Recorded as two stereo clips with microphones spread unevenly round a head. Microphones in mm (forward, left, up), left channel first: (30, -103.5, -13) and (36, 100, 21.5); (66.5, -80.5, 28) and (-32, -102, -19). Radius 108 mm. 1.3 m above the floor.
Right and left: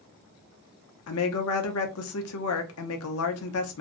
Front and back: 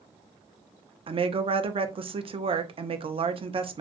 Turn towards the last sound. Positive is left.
turn(degrees=-120)